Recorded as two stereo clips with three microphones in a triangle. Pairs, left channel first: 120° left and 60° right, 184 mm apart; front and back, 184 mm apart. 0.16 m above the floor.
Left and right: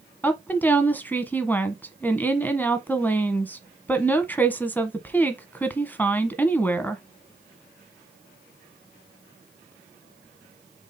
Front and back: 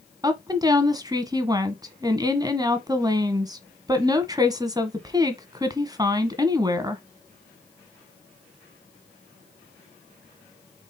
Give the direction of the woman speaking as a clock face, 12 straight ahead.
6 o'clock.